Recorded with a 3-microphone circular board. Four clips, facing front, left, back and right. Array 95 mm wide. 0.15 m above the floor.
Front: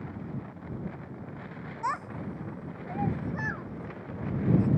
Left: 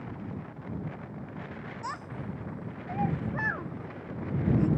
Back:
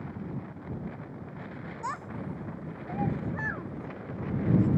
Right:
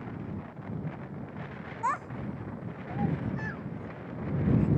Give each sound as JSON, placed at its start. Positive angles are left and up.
{"t": 1.8, "sound": "a child speaking", "azimuth_deg": -60}